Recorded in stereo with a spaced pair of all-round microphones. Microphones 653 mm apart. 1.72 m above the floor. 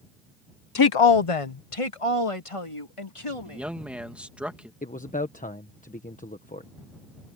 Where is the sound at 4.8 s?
10° left (ahead or behind).